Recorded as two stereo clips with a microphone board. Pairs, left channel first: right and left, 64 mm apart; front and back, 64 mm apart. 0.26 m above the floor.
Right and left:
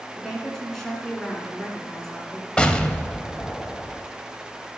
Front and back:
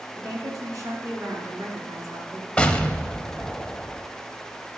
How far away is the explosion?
About 0.6 m.